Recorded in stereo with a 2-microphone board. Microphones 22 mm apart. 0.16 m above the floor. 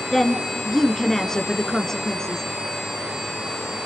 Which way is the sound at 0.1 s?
25° left (ahead or behind).